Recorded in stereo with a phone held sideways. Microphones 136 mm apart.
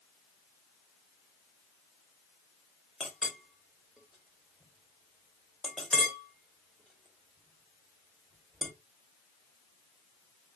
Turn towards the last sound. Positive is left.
turn(degrees=0)  # may be behind; listen again after turning